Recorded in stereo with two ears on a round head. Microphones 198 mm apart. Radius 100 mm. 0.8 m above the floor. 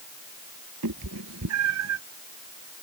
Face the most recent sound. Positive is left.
turn(degrees=-80)